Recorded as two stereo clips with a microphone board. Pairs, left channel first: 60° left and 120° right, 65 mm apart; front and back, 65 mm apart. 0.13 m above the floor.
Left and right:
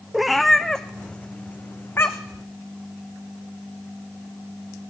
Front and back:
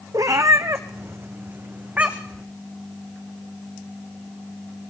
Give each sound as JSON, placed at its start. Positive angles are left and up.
{"t": 0.1, "sound": "a cat meowing", "azimuth_deg": 155, "distance_m": 1.4}